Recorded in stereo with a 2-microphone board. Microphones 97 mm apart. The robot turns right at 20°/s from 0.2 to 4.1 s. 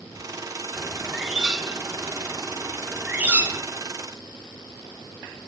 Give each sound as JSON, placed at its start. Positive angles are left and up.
{"t": 0.8, "sound": "a bird", "side_deg": -5, "distance_m": 0.9}